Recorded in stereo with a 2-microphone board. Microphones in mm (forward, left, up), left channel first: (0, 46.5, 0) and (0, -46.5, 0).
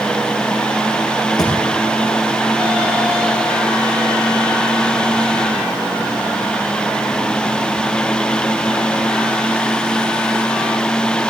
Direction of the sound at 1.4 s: 45° left (ahead or behind).